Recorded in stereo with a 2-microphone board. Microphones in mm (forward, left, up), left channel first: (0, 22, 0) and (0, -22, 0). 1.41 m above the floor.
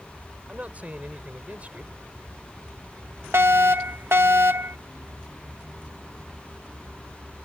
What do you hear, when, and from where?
0.5 s a man speaking: 35° right (ahead or behind)
3.3 s a fire alarm: 70° right (ahead or behind)